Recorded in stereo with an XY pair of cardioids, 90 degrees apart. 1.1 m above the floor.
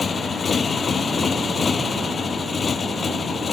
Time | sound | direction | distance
0.0 | a motorcycle | 40° left | ?